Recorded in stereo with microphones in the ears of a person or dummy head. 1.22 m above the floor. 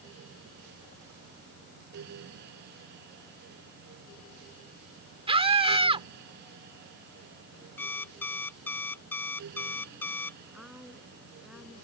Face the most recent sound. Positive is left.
turn(degrees=-10)  # may be behind; listen again after turning